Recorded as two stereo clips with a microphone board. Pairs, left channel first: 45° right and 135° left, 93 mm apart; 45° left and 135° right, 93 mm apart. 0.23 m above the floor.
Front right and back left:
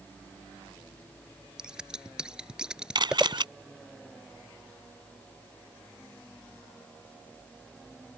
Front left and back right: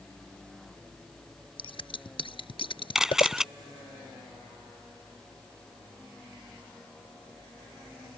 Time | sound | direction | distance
1.6 | scissors | 55° left | ?
3.0 | a camera shutter | 140° left | ?